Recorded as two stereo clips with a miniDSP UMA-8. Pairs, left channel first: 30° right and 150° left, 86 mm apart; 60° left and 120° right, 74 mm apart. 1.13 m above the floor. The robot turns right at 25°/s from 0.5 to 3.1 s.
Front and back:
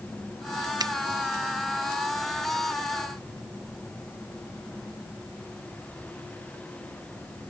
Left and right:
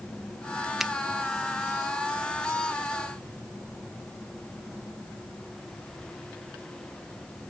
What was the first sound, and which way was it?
A finger snap, 155° left.